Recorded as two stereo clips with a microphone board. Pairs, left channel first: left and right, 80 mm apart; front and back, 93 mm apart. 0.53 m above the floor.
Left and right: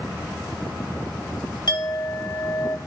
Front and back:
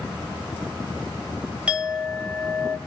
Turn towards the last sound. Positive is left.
turn(degrees=100)